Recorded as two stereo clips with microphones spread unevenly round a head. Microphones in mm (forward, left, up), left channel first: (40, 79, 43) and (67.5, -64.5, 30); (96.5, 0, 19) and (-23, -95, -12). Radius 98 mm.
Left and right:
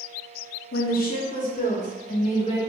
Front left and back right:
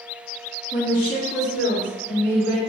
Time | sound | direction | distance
0.7 | a woman speaking | 95° left | 0.9 m